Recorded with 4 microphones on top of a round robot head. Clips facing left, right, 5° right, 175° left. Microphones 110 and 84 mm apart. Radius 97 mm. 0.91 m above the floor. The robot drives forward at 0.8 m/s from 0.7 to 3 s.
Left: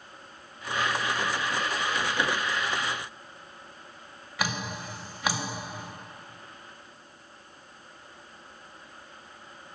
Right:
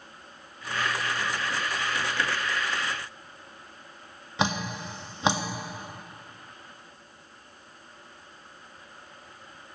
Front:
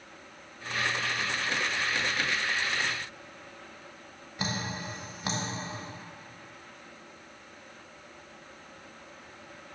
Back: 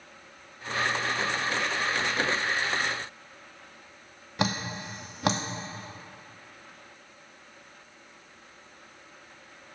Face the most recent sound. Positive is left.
turn(degrees=-155)